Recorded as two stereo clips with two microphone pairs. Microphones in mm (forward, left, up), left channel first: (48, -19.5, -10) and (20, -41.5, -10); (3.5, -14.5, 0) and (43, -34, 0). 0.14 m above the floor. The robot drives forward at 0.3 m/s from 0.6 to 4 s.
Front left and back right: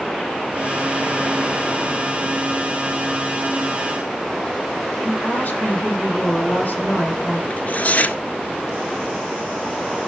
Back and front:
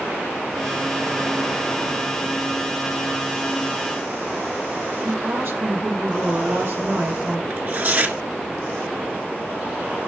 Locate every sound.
5.0 s a woman speaking: 5° right, 5.5 m
7.5 s tearing paper: 5° left, 1.6 m